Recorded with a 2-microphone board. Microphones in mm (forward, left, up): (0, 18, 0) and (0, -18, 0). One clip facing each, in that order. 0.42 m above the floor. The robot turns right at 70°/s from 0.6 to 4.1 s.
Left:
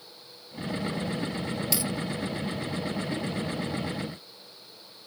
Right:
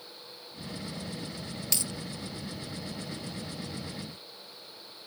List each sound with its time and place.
1.7 s a dropped coin: 5° left (ahead or behind); by 1.9 s 20° left (ahead or behind)